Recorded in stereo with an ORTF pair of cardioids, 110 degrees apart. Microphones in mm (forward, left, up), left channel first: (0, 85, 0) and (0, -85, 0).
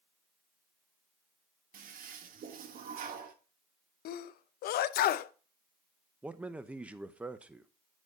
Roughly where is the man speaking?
Ahead.